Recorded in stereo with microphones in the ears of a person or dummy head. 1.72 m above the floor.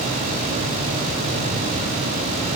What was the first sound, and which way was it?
Only background noise.